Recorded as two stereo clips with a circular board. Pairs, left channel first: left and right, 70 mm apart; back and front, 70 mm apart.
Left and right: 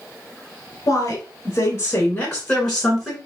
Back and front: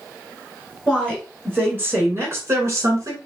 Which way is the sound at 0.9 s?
80° left.